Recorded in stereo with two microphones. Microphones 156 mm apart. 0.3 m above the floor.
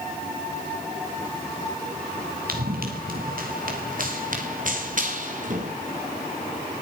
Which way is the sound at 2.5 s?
70° right (ahead or behind).